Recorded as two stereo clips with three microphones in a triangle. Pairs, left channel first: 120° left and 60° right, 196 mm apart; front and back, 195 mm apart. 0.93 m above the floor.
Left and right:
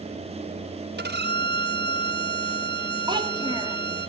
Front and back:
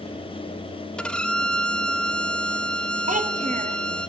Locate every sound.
1.0 s a violin: 85° right, 0.5 m
3.1 s a child speaking: 125° right, 0.9 m